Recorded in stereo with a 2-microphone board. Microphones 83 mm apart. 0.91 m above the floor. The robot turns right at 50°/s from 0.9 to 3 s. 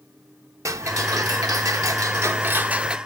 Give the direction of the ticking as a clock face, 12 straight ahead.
4 o'clock.